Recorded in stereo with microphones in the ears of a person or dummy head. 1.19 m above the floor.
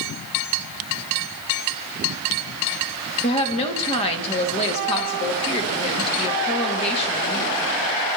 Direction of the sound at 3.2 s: 30° left (ahead or behind).